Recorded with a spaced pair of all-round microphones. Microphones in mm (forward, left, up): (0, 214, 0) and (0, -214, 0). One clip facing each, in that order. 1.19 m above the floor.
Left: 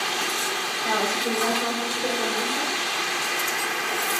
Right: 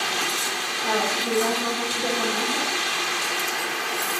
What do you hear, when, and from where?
0.8 s a woman speaking: 80° right, 4 m; by 2.7 s 65° right (ahead or behind), 3.5 m